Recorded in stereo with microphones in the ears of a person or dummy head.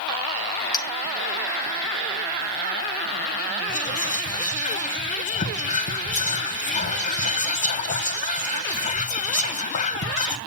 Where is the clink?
20° left (ahead or behind), 0.6 m.